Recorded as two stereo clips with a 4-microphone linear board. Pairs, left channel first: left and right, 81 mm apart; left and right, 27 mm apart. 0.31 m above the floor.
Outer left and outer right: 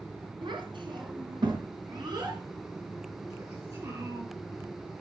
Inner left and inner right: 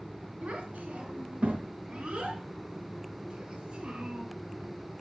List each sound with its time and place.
0.4 s a child speaking: 70° right (ahead or behind), 3 m; by 4.2 s 40° right (ahead or behind), 4.5 m